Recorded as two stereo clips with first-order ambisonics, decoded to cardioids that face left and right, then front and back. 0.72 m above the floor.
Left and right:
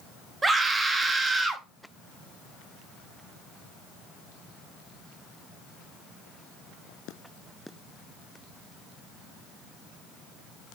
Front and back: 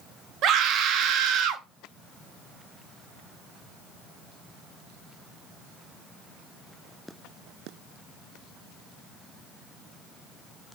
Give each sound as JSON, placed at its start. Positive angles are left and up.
{"t": 0.4, "sound": "a scream", "azimuth_deg": -160, "distance_m": 0.7}